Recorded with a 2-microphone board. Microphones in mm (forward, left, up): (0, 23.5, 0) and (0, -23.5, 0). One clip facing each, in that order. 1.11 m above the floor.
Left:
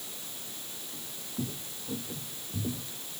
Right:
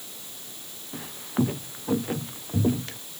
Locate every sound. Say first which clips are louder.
0.9 s footsteps: right 12 dB; 65° right (ahead or behind); by 3.0 s 75° right (ahead or behind)